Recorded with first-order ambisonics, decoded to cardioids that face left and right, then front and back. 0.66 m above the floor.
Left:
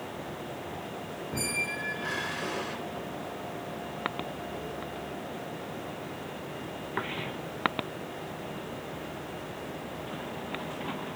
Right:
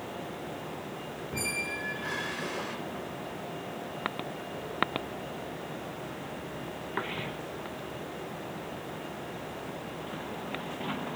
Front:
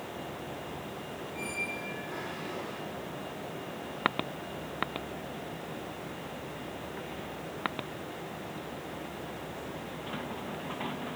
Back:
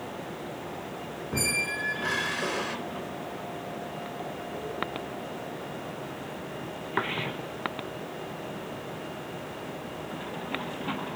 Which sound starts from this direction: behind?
A squeak, at 1.3 s.